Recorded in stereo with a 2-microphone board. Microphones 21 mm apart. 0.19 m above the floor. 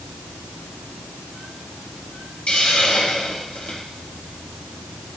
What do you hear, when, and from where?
2.5 s a hiss: 75° left (ahead or behind), 4.5 m